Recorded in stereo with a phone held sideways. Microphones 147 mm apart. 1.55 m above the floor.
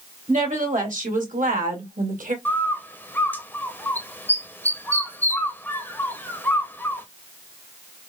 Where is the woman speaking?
70° right (ahead or behind), 1.8 m; by 2.4 s 75° right (ahead or behind), 1.1 m.